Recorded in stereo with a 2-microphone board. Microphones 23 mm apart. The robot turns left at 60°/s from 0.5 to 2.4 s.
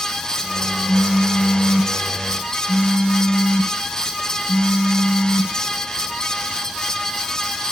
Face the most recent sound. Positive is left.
turn(degrees=50)